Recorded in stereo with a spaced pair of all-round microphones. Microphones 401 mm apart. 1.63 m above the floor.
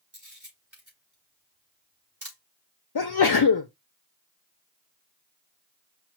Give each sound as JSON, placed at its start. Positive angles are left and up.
{"t": 0.1, "sound": "a camera shutter", "side_deg": -45, "distance_m": 4.0}
{"t": 3.0, "sound": "a sneeze", "side_deg": 75, "distance_m": 0.5}